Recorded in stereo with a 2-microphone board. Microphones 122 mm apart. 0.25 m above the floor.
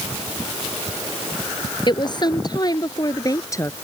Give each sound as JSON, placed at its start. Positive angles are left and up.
{"t": 1.9, "sound": "a woman speaking", "side_deg": 40}